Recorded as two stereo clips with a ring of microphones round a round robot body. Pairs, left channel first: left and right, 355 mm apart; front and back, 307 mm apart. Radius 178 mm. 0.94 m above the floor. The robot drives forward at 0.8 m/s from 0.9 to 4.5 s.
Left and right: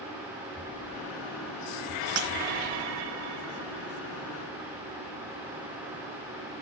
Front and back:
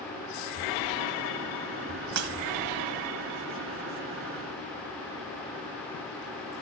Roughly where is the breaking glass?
Behind right.